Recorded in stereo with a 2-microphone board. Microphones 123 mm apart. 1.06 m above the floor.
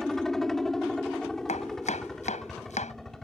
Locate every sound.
0.0 s a helicopter: 5° left (ahead or behind)
1.5 s chopping: 75° left (ahead or behind)